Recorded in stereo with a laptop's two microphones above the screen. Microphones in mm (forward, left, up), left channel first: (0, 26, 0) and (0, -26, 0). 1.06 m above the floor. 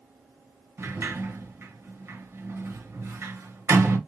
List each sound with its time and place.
0.8 s a sliding door: 45° right (ahead or behind), 0.8 m